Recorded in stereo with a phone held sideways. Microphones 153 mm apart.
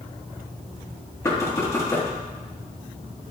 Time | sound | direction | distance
1.2 | knocking | 20° left (ahead or behind) | 1.4 m